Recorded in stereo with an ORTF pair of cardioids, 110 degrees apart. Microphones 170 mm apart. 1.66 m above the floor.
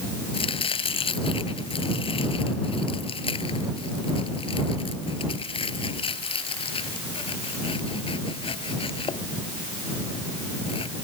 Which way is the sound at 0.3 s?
30° left.